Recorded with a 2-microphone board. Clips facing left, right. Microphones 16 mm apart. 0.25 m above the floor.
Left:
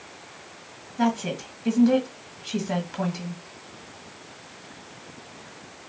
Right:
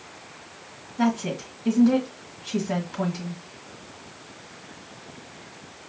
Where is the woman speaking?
10° left (ahead or behind), 1.6 m.